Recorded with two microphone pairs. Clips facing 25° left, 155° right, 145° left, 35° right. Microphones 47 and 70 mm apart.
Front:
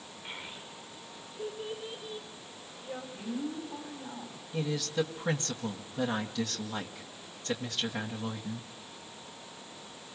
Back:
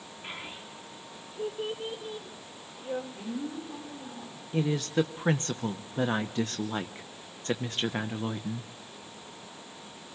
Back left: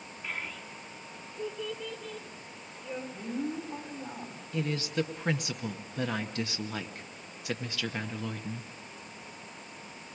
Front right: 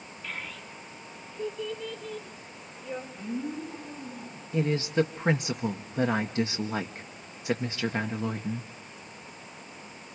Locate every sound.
0.2 s a child speaking: 145° right, 3.5 m; by 3.0 s 125° right, 6 m
3.1 s a woman speaking: 115° left, 5.5 m
4.5 s a woman speaking: 100° right, 1.1 m